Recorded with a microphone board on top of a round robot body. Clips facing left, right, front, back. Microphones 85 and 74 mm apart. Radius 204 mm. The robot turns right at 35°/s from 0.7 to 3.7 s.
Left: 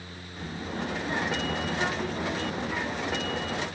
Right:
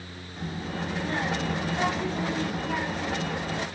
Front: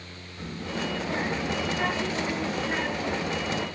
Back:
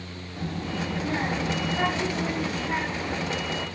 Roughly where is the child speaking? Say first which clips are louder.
Right 1 dB, back 2 dB; behind.